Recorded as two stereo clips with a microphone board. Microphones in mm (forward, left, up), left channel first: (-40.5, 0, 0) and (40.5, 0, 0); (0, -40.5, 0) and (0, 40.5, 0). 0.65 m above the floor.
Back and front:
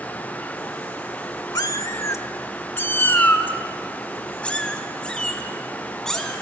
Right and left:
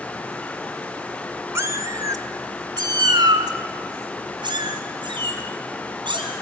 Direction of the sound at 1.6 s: 145° left.